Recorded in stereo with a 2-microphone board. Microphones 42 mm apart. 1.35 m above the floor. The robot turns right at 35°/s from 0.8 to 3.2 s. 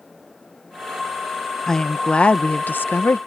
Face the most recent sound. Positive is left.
turn(degrees=65)